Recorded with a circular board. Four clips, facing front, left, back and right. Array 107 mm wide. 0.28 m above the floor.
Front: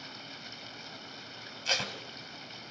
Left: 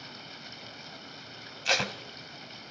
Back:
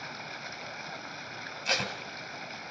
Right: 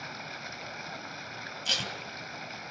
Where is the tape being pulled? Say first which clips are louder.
Left 8 dB, back 3 dB; 105° left, 1.3 m.